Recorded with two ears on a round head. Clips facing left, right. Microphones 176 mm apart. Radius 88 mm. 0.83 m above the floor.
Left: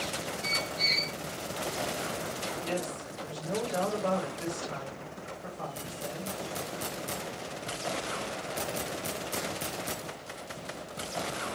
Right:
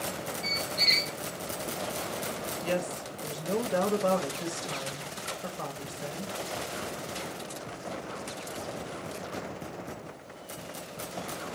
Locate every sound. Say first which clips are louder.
0.4 s a squeak: right 1 dB; 60° right (ahead or behind), 0.5 m
2.6 s a woman speaking: right 5 dB; 60° right (ahead or behind), 1.0 m